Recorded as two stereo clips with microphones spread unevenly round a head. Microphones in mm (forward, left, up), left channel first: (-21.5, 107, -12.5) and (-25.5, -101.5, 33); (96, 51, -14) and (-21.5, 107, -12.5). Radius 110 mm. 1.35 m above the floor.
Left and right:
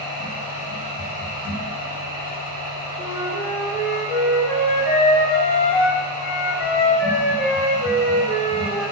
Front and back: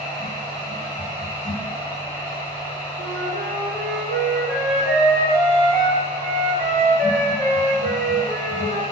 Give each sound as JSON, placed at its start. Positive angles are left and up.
{"t": 0.0, "sound": "a machine running", "azimuth_deg": -135, "distance_m": 1.1}
{"t": 3.0, "sound": "a flute", "azimuth_deg": 145, "distance_m": 1.0}